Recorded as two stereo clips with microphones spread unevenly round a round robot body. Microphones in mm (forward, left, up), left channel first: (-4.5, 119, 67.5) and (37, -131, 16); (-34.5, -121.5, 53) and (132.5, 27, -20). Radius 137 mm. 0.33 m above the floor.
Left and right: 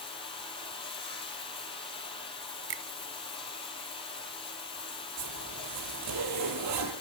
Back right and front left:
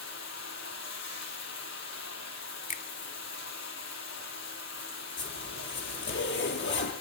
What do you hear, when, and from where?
0.0 s running water: 170° left, 4.5 m
2.7 s a finger snap: 75° right, 1.1 m
5.2 s a zipper: 100° right, 7.5 m